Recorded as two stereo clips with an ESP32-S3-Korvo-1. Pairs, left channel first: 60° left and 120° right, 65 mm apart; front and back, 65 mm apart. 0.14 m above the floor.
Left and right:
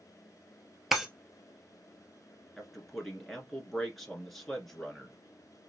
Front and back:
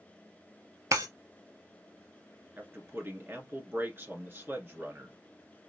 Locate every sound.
0.9 s breaking glass: 155° left, 1.1 m
2.6 s a man speaking: 145° left, 1.6 m